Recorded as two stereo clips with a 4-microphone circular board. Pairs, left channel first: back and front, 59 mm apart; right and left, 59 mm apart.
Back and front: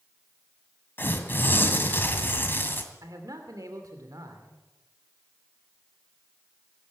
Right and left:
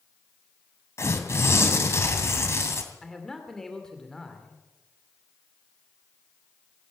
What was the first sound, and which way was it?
Tearing paper, 125° right.